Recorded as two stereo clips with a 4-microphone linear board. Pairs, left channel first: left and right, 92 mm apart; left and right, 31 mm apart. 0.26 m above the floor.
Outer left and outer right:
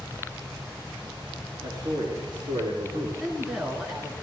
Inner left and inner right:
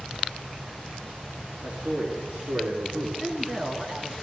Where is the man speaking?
50° right (ahead or behind), 4 m; by 3.1 s 65° right (ahead or behind), 3 m.